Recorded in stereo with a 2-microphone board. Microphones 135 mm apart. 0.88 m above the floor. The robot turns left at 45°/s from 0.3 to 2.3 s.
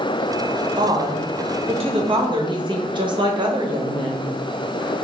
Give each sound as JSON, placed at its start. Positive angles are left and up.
{"t": 0.8, "sound": "a woman speaking", "azimuth_deg": -55, "distance_m": 0.8}